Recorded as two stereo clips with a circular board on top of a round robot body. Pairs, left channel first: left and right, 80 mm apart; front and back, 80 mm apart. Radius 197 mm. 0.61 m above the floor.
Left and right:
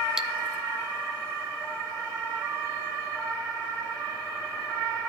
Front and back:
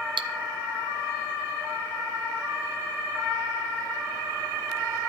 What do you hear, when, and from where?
0.2 s cutlery clinking: 175° right, 0.5 m